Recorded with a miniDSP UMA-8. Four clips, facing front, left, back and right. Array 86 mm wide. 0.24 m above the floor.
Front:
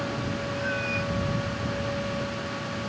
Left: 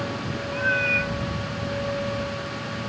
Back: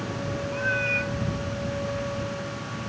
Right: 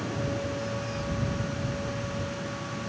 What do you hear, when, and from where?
0.5 s a cat meowing: 110° left